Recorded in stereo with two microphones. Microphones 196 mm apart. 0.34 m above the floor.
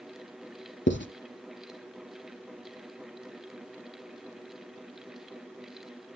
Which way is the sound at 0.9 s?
60° left (ahead or behind).